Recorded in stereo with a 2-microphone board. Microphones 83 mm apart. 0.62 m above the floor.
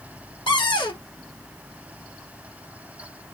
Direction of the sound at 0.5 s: 75° left (ahead or behind).